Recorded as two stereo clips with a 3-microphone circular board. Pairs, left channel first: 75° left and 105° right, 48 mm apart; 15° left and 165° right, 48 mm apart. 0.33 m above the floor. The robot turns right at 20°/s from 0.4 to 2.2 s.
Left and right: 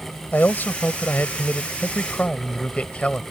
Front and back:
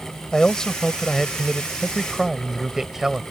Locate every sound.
0.3 s a man speaking: 80° left; by 3.2 s 120° left